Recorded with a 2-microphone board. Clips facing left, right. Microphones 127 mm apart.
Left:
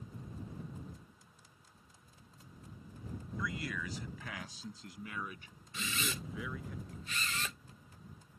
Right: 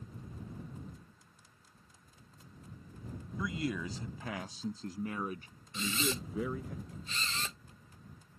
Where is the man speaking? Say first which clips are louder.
Right 5 dB; 25° right (ahead or behind); by 6.7 s 40° right (ahead or behind).